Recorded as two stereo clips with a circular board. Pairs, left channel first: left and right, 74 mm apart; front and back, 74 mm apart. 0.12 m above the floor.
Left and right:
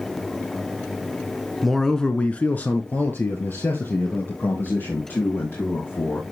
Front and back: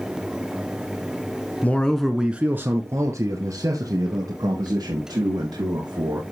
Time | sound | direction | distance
1.6 | a man speaking | straight ahead | 1.2 m